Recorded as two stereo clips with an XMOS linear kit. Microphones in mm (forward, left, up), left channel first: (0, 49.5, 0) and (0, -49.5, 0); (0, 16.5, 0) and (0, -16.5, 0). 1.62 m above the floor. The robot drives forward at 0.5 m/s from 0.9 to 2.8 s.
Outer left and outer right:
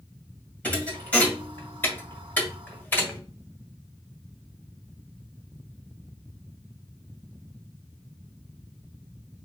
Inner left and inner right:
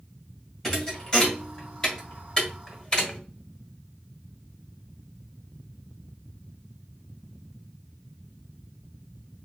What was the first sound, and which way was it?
A thud, 15° left (ahead or behind).